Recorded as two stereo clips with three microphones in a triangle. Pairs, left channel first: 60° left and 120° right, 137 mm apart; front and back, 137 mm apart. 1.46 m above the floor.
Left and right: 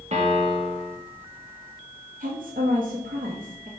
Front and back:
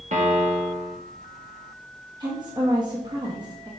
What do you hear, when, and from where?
0.1 s a piano: 155° right, 0.9 m
2.2 s a woman speaking: 125° right, 0.8 m